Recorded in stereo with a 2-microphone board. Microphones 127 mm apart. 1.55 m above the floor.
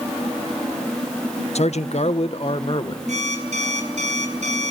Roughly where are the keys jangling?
I don't hear keys jangling.